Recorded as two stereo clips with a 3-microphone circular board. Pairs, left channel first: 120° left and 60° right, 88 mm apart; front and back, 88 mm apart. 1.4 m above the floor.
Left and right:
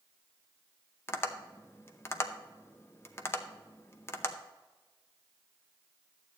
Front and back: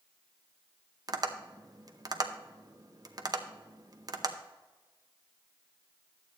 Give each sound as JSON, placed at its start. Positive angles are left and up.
{"t": 1.1, "sound": "tapping", "azimuth_deg": 170, "distance_m": 0.7}